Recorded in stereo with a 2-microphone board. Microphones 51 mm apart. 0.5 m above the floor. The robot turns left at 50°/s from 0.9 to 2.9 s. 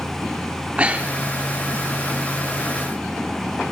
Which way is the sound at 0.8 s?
25° right (ahead or behind).